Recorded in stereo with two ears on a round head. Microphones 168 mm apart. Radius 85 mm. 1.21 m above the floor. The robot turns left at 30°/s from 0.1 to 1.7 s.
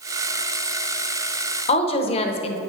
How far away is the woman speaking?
About 0.7 m.